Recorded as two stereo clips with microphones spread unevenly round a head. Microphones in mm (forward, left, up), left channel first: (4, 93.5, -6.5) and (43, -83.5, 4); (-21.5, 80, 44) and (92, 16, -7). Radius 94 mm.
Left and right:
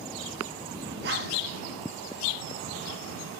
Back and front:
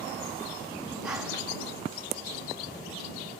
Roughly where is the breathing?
Behind right.